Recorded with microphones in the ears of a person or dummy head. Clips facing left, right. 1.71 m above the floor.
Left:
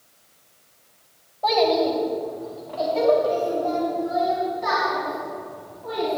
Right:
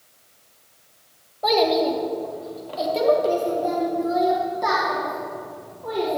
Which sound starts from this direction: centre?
A child speaking, at 1.4 s.